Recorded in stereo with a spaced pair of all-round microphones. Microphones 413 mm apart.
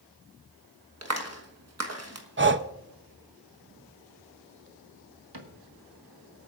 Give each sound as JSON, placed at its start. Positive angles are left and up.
{"t": 1.0, "sound": "a clap", "side_deg": -40, "distance_m": 1.3}
{"t": 2.4, "sound": "breathing", "side_deg": -30, "distance_m": 0.6}
{"t": 5.3, "sound": "a cupboard door", "side_deg": -70, "distance_m": 1.5}